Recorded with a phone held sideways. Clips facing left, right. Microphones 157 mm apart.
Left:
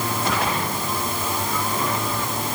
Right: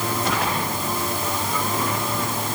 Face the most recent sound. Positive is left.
No sound to turn to.